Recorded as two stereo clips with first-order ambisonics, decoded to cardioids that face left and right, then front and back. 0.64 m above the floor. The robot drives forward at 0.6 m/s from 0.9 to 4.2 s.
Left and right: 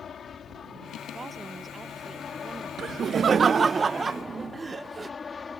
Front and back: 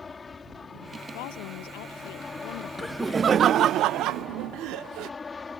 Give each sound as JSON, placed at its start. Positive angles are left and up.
{"t": 0.0, "sound": "an aircraft", "azimuth_deg": 60}
{"t": 1.1, "sound": "a woman speaking", "azimuth_deg": -10}
{"t": 2.8, "sound": "laughter", "azimuth_deg": -75}